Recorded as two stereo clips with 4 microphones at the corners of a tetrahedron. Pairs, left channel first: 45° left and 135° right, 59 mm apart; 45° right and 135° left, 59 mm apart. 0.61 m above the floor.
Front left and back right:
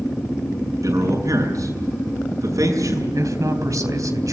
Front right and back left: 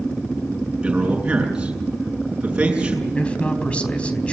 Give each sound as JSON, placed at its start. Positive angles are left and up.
{"t": 0.8, "sound": "a man speaking", "azimuth_deg": -150, "distance_m": 7.0}
{"t": 3.1, "sound": "a man speaking", "azimuth_deg": -115, "distance_m": 3.5}